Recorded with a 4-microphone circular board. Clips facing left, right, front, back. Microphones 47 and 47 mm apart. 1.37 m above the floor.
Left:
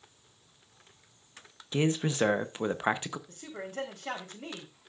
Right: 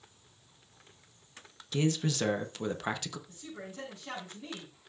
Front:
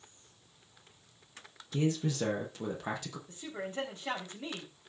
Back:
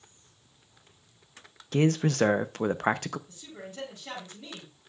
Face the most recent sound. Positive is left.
turn(degrees=55)